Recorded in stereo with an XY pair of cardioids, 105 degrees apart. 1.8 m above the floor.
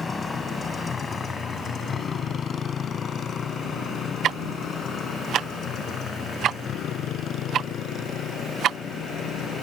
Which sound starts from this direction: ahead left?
A motorcycle, at 0.0 s.